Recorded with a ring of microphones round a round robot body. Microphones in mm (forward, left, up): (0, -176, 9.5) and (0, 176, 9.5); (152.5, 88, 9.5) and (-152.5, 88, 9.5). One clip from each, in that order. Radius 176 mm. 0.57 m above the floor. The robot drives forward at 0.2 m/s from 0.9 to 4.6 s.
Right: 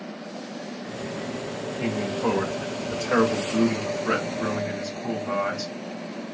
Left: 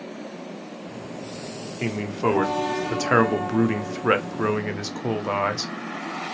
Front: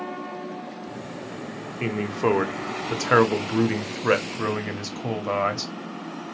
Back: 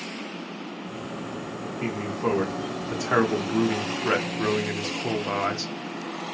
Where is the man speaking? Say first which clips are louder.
Left 2 dB, front 4 dB; 35° left, 1.0 m; by 5.7 s 80° left, 0.7 m.